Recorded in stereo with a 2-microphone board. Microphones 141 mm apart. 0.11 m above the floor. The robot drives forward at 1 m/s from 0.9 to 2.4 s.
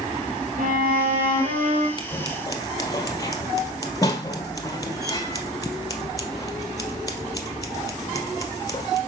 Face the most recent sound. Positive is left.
turn(degrees=25)  # may be behind; listen again after turning